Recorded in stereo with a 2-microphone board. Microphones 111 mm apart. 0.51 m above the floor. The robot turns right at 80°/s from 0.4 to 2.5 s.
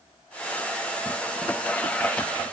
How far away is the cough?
No cough in this recording.